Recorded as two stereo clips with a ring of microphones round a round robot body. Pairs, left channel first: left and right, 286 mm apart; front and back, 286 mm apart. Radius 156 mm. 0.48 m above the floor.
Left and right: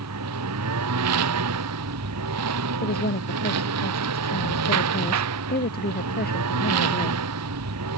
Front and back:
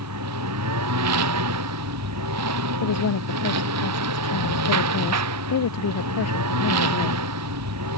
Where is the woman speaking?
35° left.